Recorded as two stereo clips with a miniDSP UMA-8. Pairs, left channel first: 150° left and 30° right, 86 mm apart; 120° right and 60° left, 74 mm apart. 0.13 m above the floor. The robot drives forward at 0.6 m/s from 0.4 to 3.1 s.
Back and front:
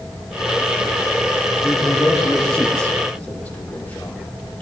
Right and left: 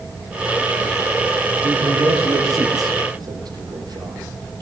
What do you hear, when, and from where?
1.6 s a man speaking: 65° left, 5 m; by 4.6 s 75° left, 5 m